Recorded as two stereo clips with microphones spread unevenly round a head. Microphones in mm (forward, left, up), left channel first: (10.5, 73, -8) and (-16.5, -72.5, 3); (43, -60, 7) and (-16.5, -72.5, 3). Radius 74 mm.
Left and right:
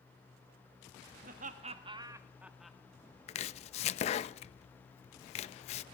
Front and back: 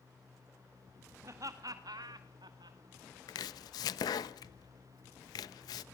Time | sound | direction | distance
1.2 | laughter | 135° right | 2.0 m
3.3 | chopping | 30° left | 0.6 m